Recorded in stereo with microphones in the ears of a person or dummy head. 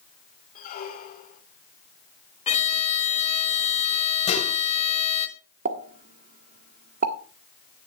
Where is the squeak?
45° left (ahead or behind), 2.5 m.